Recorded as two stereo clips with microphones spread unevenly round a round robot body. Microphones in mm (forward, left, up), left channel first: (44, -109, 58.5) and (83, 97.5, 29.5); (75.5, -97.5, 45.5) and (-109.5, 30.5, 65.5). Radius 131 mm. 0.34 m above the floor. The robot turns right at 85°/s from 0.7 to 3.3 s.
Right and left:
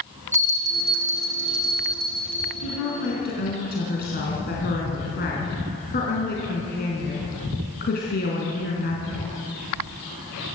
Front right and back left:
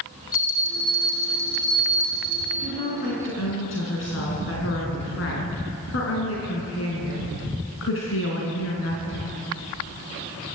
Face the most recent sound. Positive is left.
turn(degrees=-60)